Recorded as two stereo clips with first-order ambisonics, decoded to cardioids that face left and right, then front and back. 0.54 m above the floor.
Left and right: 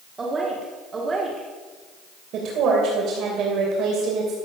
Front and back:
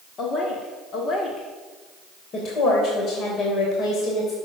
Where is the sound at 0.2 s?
30° right, 1.4 m.